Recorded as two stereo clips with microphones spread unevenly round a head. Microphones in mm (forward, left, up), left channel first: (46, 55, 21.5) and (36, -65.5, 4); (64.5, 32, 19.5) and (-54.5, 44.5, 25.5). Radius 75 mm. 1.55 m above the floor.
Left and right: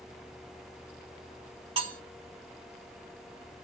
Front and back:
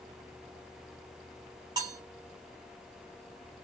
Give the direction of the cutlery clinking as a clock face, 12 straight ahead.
5 o'clock.